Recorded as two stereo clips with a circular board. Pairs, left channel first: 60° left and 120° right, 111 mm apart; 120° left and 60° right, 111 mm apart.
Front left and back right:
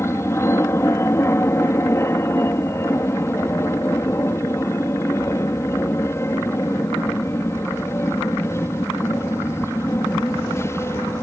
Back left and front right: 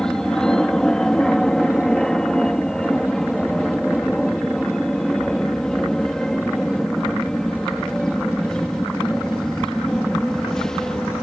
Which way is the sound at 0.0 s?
40° left.